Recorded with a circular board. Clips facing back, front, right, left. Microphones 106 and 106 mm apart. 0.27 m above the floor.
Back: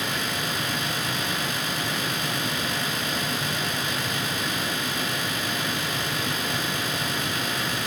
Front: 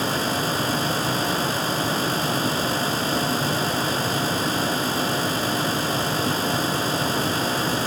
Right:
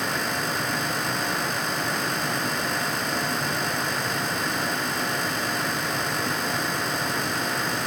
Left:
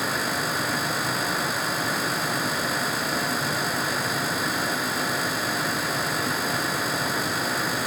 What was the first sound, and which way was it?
Only background noise.